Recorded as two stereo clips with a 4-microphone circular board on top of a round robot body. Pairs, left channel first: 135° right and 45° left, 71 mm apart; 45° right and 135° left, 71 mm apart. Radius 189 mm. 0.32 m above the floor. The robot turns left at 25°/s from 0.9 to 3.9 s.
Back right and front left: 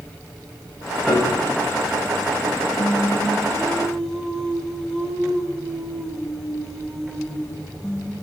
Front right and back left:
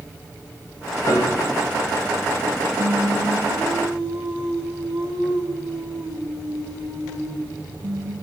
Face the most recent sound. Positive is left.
turn(degrees=145)